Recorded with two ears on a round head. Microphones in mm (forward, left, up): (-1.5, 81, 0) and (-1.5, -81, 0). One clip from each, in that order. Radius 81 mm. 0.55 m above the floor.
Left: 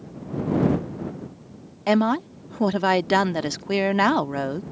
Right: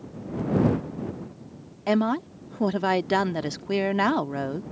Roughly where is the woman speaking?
Centre.